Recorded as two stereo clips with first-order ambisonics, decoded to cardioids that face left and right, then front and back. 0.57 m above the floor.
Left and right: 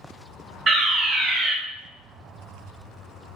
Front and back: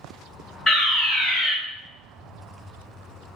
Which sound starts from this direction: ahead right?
A fire alarm, at 0.7 s.